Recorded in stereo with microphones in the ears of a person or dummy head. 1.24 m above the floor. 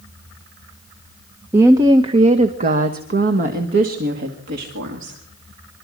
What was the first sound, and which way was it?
A woman speaking, 10° right (ahead or behind).